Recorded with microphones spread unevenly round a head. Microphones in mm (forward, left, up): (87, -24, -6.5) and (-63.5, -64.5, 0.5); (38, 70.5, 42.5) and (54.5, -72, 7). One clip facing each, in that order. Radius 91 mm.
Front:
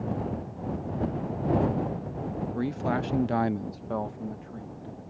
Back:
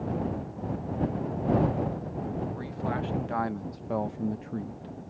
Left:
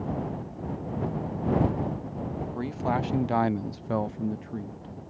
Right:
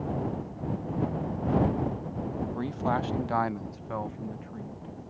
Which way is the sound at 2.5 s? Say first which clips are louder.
Front 4 dB, left 2 dB; 5° left.